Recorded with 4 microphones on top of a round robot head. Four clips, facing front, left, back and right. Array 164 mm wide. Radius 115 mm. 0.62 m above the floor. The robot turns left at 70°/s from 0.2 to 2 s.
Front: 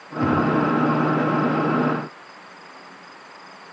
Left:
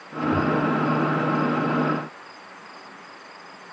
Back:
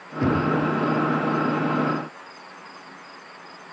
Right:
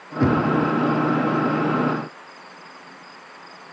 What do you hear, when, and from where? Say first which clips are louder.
0.2 s knocking: right 3 dB, front 2 dB; 90° right, 6.5 m; by 0.5 s 115° right, 6.5 m